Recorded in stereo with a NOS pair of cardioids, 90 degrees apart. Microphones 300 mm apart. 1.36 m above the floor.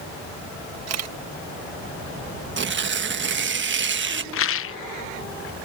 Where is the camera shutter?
60° right.